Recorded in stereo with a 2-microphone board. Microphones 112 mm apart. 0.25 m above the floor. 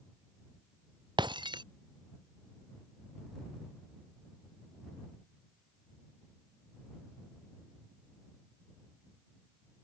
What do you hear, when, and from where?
1.2 s breaking glass: 40° right (ahead or behind)